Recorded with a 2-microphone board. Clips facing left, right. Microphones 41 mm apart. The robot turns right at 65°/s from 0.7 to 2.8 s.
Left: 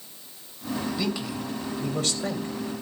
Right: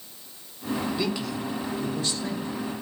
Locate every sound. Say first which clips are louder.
1.0 s a man speaking: right 1 dB; 15° right, 3 m; by 2.5 s 85° left, 3 m